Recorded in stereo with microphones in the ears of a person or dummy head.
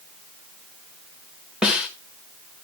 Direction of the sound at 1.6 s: 5° right (ahead or behind).